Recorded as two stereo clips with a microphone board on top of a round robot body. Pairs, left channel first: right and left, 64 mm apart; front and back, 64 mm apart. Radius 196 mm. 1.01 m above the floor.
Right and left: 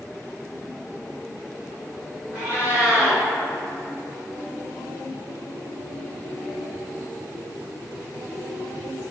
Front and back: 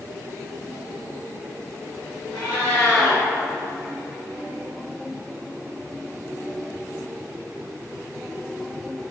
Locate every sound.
2.3 s a cat meowing: 20° left, 1.5 m